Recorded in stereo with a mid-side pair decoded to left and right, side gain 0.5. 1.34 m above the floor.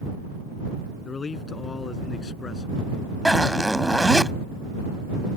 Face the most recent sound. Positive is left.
turn(degrees=0)